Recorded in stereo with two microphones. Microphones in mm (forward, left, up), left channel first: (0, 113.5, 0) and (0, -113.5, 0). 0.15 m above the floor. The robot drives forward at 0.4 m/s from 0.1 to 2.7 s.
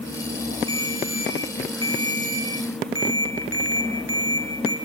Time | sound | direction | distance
0.7 | a ringtone | 70° right (ahead or behind) | 3.5 m